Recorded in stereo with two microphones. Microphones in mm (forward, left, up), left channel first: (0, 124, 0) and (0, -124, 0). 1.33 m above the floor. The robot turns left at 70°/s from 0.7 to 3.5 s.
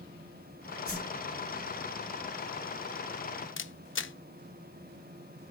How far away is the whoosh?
About 2.5 m.